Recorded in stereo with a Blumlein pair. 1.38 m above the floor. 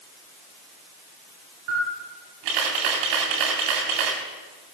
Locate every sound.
1.7 s a camera shutter: 45° right, 4 m